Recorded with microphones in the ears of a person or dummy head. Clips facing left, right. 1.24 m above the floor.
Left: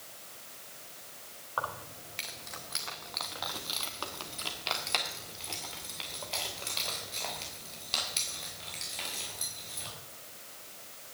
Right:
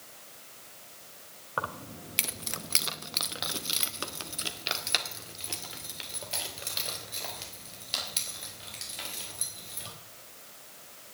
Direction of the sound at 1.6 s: 30° right (ahead or behind).